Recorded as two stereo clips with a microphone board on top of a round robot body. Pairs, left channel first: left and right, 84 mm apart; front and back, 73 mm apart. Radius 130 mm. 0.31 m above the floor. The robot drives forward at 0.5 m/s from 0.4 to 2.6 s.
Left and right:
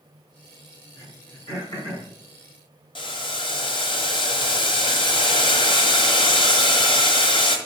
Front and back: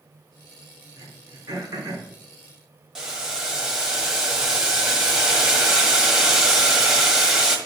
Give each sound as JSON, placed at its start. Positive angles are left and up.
{"t": 1.0, "sound": "throat clearing", "azimuth_deg": 130, "distance_m": 3.0}
{"t": 3.0, "sound": "boiling", "azimuth_deg": 95, "distance_m": 1.6}